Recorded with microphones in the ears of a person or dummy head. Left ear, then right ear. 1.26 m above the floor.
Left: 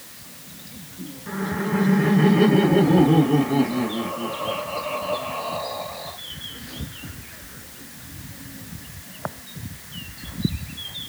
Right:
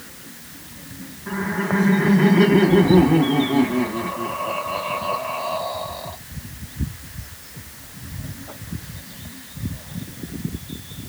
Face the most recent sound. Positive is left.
turn(degrees=-15)  # may be behind; listen again after turning